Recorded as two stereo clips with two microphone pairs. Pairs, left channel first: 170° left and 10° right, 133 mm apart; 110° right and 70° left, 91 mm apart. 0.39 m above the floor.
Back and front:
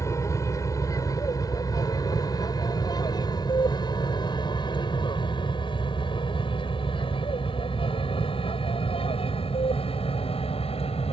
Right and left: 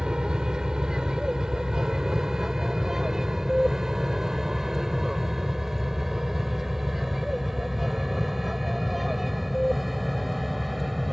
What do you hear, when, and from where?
0.0 s an aircraft: 140° left; by 11.1 s 160° left